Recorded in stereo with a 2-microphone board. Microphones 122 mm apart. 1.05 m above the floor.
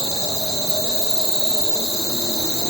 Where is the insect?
50° right (ahead or behind), 3 m.